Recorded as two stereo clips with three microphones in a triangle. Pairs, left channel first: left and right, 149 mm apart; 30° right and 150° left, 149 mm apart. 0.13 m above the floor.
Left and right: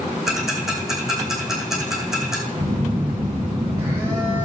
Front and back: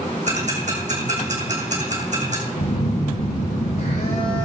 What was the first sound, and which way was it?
Ticking, straight behind.